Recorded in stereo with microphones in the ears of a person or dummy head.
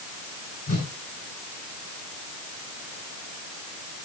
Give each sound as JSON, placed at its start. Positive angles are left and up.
{"t": 0.7, "sound": "a whoosh", "side_deg": 45, "distance_m": 3.5}